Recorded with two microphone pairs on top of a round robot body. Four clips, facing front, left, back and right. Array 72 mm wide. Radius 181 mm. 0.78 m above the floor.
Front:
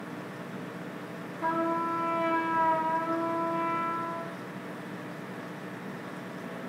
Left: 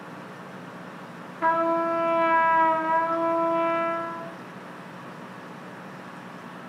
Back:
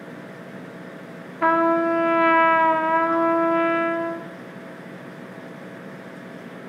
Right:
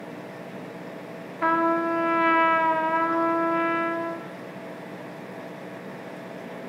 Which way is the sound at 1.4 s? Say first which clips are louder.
Even, back 10 dB; 170° right.